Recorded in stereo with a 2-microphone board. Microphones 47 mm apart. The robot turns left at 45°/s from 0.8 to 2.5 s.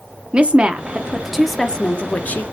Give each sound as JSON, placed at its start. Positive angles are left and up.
{"t": 0.3, "sound": "a woman speaking", "azimuth_deg": -155, "distance_m": 0.5}